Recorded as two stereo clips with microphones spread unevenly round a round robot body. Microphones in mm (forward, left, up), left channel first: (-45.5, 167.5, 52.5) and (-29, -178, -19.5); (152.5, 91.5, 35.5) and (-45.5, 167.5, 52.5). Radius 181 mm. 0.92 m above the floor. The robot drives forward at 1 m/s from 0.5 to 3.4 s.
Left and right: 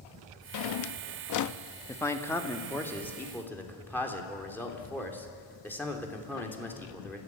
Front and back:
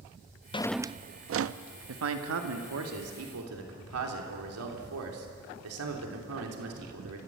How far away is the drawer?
About 0.6 m.